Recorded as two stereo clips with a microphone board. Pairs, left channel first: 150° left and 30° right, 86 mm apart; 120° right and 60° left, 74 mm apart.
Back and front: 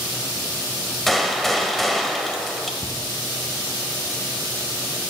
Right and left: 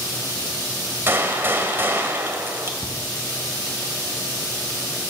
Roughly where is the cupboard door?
Ahead right.